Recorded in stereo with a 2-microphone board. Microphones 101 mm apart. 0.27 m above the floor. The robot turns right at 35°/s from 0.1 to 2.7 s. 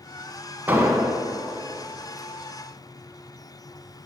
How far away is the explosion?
About 0.5 m.